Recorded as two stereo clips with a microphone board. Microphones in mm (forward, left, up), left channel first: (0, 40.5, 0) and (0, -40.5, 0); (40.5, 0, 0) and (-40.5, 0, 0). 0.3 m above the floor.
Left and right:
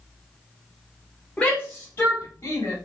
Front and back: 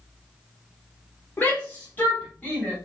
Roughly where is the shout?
Ahead left.